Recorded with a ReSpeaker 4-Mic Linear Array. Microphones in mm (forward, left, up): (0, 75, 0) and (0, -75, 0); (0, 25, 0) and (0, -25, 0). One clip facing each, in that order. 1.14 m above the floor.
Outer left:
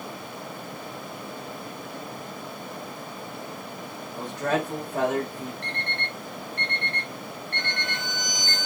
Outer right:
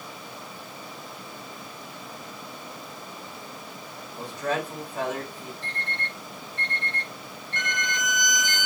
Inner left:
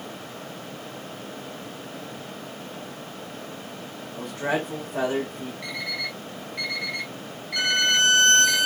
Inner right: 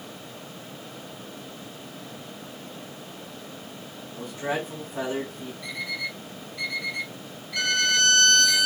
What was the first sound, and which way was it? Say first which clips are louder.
A man speaking: outer left 2 dB, inner left 3 dB; 65° left (ahead or behind).